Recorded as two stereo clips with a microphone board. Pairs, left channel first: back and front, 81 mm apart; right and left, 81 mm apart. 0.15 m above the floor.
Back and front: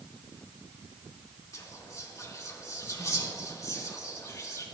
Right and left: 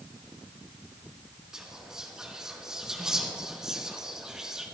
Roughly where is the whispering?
Behind.